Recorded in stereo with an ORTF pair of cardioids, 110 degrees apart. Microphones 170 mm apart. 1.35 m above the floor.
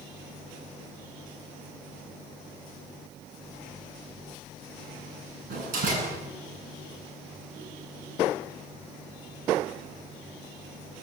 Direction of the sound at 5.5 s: 55° right.